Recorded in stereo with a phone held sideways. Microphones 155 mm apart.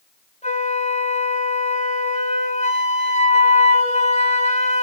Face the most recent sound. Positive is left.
turn(degrees=45)  # may be behind; listen again after turning